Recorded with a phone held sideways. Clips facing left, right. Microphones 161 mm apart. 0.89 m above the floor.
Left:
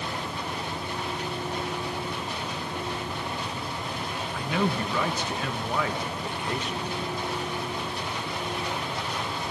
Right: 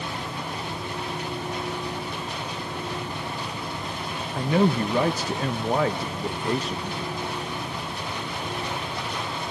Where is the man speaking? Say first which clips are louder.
Right 6 dB; 35° right (ahead or behind), 0.6 m.